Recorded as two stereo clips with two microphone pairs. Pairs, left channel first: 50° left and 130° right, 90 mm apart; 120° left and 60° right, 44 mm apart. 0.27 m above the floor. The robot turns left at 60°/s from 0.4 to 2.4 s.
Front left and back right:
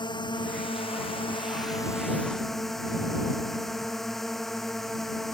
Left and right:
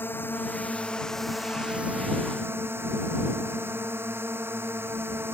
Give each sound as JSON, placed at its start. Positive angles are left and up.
{"t": 0.0, "sound": "a drone", "azimuth_deg": 85}